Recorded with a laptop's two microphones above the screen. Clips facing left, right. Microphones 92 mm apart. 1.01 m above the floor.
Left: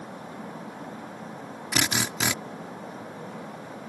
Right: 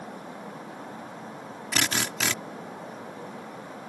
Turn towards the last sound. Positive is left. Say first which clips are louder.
# left 1 dB
turn(degrees=15)  # may be behind; listen again after turning